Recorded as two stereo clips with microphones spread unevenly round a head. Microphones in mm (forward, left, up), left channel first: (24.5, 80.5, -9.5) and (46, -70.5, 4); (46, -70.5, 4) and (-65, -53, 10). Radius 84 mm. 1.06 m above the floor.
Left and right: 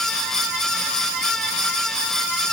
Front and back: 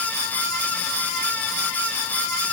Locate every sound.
Only background noise.